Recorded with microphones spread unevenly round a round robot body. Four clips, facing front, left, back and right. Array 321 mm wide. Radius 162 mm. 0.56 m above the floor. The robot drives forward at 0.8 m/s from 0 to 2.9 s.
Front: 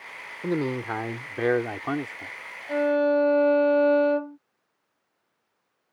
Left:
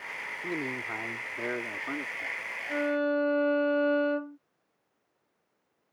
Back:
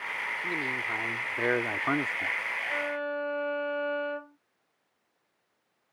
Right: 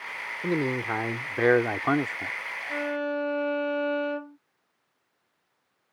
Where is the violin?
25° left.